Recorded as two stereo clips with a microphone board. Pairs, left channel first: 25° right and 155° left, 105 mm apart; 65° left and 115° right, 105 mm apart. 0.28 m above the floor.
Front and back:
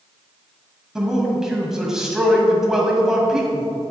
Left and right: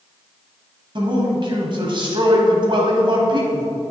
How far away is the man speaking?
About 1.7 m.